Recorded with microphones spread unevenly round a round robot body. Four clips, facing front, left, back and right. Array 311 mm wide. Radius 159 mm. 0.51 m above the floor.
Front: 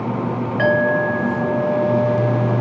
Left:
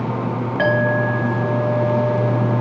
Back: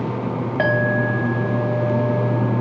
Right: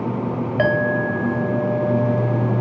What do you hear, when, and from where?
0.6 s a clink: 110° right, 1.0 m